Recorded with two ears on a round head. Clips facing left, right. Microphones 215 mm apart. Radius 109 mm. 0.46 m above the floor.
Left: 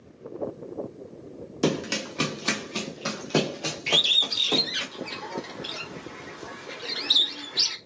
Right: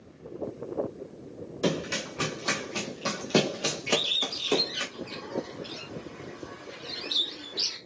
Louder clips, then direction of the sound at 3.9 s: Right 4 dB; 70° left (ahead or behind).